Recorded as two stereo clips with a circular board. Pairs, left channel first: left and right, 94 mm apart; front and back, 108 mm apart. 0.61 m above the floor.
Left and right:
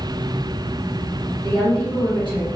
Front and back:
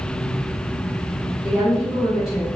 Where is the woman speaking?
95° right, 1.6 m.